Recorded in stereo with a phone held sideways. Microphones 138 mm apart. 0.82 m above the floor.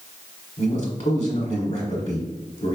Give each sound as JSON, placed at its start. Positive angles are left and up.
{"t": 0.6, "sound": "a man speaking", "side_deg": 55, "distance_m": 1.6}